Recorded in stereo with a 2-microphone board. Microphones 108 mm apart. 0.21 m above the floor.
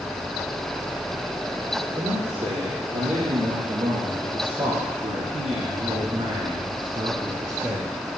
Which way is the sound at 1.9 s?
75° right (ahead or behind).